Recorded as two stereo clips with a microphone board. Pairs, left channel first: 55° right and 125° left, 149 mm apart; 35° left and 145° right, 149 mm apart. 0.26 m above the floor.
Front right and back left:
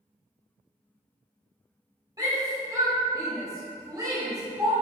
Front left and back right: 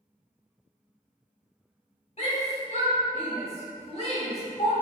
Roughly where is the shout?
Ahead left.